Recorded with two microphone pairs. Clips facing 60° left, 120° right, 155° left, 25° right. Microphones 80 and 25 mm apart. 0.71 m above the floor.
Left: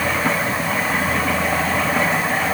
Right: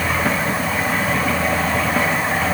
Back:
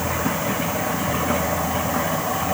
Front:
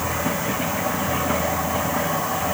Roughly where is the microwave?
No microwave in this recording.